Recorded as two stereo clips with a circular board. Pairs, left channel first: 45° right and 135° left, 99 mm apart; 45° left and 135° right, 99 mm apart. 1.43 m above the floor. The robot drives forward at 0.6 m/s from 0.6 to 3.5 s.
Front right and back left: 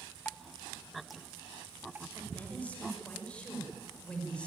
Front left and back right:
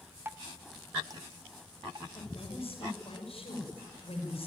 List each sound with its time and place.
0.2 s dripping: 100° right, 0.7 m; by 2.0 s 160° right, 1.2 m
2.1 s a woman speaking: 30° left, 7 m; by 4.5 s 35° left, 6 m